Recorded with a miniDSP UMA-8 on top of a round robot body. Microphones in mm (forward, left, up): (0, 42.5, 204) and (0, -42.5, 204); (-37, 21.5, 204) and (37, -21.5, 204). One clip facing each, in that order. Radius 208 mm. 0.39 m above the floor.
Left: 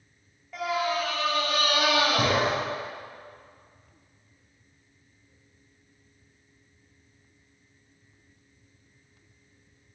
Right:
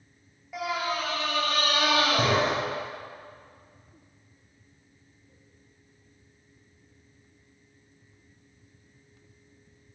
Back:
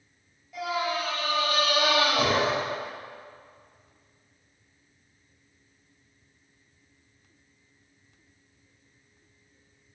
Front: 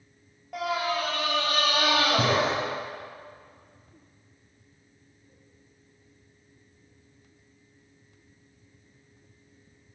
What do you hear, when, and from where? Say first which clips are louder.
0.5 s a scream: left 2 dB, front 1 dB; 10° right, 3.5 m; by 2.5 s 10° left, 5 m